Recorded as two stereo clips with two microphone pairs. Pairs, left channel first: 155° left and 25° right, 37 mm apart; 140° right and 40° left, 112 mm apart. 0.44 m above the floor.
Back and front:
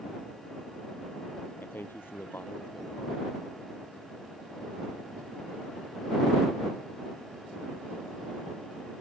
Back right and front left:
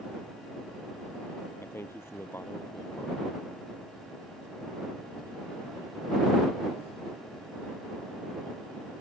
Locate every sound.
1.6 s a man speaking: 150° left